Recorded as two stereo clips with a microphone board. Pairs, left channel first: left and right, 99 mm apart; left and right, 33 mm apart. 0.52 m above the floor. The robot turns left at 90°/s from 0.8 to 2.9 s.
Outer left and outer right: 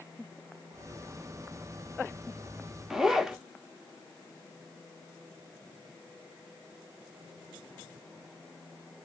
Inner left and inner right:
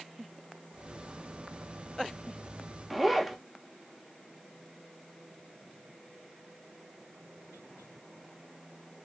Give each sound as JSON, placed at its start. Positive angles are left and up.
{"t": 2.9, "sound": "a zipper", "side_deg": -5, "distance_m": 0.6}